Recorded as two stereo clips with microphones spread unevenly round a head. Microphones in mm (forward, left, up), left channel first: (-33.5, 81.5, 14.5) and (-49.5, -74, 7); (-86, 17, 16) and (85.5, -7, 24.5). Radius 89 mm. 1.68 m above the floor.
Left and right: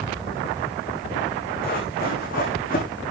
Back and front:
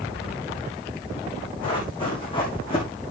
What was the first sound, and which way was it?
Running footsteps, 110° left.